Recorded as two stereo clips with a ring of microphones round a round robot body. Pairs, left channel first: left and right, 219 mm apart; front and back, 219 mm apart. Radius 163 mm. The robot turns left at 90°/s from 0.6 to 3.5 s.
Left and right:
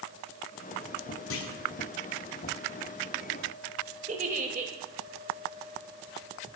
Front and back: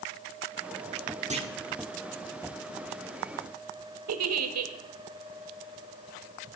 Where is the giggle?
160° right, 1.0 m.